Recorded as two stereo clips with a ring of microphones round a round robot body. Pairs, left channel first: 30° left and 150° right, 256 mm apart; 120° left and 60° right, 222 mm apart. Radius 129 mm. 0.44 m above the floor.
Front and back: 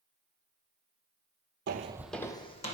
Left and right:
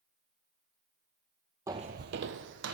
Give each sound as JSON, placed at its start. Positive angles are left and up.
{"t": 1.7, "sound": "footsteps", "azimuth_deg": -135, "distance_m": 0.5}